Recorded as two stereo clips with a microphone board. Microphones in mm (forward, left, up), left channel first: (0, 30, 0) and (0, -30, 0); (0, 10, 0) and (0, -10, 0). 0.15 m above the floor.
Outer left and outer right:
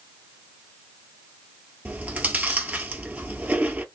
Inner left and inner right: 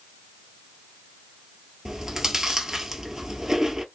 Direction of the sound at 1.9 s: 25° right (ahead or behind).